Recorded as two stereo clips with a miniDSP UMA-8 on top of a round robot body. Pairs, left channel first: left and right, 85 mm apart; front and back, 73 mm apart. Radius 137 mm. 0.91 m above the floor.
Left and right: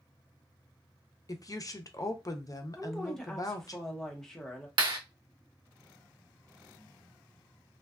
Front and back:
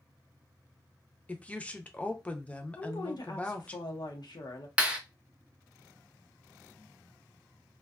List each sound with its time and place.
1.3 s a woman speaking: 65° left, 0.6 m
2.8 s a woman speaking: 5° left, 0.8 m
4.8 s a clap: 105° right, 1.0 m